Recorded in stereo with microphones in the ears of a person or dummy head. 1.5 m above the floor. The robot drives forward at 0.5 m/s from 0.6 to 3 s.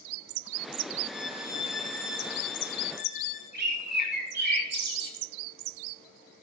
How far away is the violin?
About 0.6 m.